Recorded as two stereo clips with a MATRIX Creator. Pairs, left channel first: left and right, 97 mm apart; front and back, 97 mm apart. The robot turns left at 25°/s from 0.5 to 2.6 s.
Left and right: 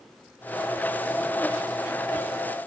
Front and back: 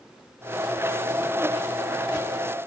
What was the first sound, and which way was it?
Only background noise.